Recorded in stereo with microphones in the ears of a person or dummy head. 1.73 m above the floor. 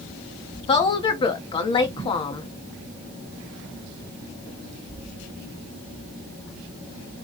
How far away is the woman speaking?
About 1.0 m.